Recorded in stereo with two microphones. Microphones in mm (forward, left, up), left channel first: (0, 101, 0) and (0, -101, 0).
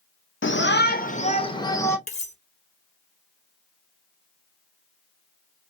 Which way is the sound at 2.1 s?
35° left (ahead or behind).